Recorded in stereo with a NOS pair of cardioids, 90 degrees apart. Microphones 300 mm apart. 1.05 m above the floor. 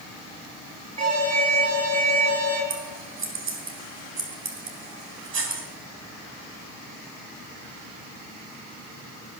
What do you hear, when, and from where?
1.0 s an alarm: 55° right, 6.5 m
2.7 s scissors: 40° right, 3.5 m